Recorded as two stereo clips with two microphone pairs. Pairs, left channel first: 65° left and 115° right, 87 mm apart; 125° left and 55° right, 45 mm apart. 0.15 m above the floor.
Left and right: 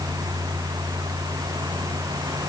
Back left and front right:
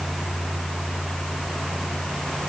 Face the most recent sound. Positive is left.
No sound to turn to.